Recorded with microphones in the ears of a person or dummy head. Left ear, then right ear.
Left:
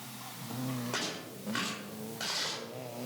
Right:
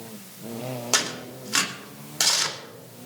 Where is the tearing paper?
80° right, 3 m.